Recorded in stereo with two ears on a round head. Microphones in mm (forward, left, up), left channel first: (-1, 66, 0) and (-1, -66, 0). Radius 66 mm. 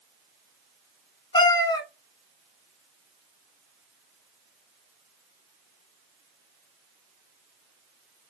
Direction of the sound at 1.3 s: 30° left (ahead or behind).